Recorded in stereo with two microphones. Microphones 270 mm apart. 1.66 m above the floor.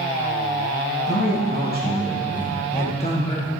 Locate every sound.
1.1 s a man speaking: 40° left (ahead or behind), 2.5 m; by 3.5 s 15° left (ahead or behind), 1.6 m